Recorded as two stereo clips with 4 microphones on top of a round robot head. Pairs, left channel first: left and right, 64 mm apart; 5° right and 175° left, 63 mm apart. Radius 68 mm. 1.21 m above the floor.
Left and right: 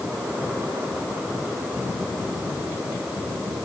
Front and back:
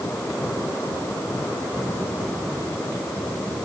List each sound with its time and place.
Only background noise.